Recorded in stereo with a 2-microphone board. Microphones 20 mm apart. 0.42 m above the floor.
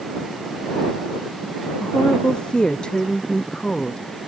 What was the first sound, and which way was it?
A woman speaking, 50° left (ahead or behind).